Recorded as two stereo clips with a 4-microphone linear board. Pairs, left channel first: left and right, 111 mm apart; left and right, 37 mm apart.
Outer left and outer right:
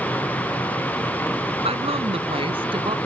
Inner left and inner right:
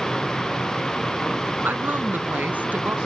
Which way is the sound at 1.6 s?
65° right (ahead or behind).